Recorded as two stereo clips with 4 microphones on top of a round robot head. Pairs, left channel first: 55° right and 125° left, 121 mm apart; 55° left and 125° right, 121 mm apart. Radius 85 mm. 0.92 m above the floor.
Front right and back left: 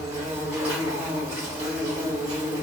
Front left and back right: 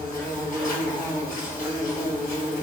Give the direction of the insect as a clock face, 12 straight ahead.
10 o'clock.